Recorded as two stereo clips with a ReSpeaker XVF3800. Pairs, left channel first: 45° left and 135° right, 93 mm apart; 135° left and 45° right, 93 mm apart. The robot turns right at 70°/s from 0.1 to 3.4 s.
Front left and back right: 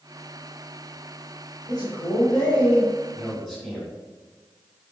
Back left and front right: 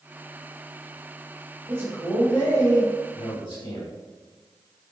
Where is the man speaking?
10° left, 1.8 m; by 3.9 s 130° left, 1.8 m.